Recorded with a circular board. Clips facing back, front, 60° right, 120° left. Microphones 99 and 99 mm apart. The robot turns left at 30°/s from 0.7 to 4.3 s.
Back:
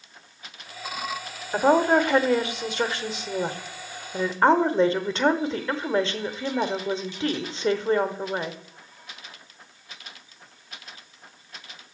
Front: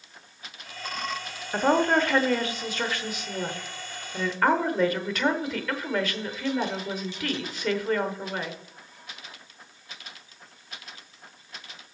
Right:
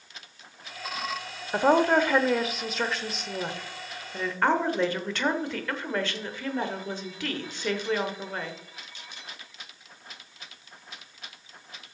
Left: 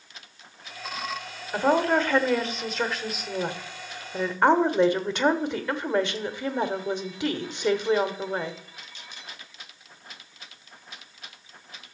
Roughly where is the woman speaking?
Right.